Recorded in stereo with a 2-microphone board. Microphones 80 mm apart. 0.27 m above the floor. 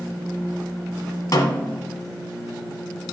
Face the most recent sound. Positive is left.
turn(degrees=50)  # may be behind; listen again after turning